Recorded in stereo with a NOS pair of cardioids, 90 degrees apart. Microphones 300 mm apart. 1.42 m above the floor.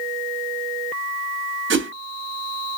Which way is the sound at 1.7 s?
40° right.